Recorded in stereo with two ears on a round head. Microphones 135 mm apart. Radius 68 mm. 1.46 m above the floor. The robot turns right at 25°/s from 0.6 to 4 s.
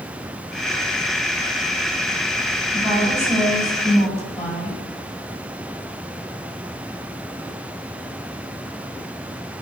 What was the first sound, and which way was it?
A woman speaking, 25° right.